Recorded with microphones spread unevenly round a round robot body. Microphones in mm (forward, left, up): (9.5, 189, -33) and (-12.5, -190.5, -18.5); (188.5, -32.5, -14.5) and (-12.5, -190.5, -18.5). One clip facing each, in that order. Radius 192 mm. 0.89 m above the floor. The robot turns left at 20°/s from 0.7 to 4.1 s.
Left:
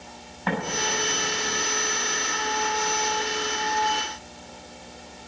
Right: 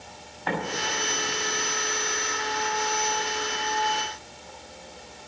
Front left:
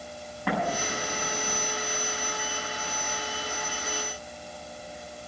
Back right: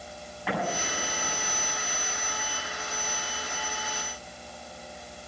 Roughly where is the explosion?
Left.